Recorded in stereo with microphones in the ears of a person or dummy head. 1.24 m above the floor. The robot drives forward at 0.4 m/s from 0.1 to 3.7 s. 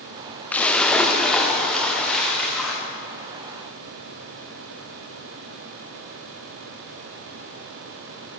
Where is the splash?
10° left (ahead or behind), 0.5 m; by 2.8 s 5° left (ahead or behind), 1.4 m.